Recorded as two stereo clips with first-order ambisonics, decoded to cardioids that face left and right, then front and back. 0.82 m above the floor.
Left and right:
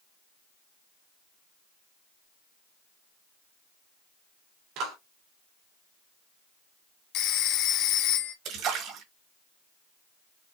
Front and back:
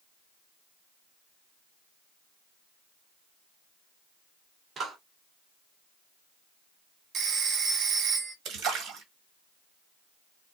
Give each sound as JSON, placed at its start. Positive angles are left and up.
{"t": 4.8, "sound": "a clap", "azimuth_deg": -110, "distance_m": 2.0}
{"t": 7.1, "sound": "a phone ringing", "azimuth_deg": 120, "distance_m": 0.7}
{"t": 8.4, "sound": "a splash", "azimuth_deg": -130, "distance_m": 1.8}